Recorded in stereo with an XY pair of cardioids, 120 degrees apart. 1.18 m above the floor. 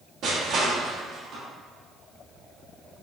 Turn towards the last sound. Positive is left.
turn(degrees=-55)